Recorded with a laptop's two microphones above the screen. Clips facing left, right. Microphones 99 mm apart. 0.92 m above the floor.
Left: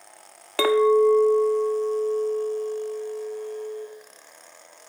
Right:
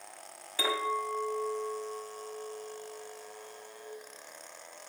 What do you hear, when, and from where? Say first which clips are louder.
0.6 s a clink: left 15 dB; 80° left, 0.7 m